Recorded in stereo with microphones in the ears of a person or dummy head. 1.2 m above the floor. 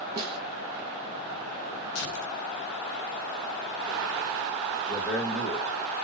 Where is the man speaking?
10° left (ahead or behind), 1.5 m.